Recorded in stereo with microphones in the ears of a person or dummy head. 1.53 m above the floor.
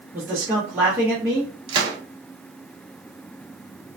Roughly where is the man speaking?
Centre.